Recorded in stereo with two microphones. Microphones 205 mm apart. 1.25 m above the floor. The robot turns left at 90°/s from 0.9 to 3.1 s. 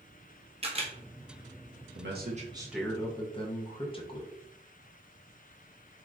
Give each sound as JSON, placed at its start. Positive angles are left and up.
{"t": 0.6, "sound": "a camera shutter", "side_deg": -30, "distance_m": 0.6}
{"t": 1.9, "sound": "a man speaking", "azimuth_deg": -105, "distance_m": 0.7}